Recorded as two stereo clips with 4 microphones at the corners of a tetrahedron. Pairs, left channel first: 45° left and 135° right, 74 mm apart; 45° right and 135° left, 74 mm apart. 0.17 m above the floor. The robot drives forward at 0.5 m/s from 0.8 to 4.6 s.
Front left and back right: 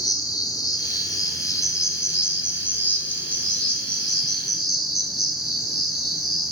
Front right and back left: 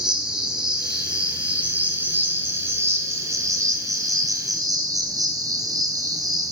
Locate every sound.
0.0 s an insect: 55° left, 1.7 m; by 6.5 s 135° left, 1.8 m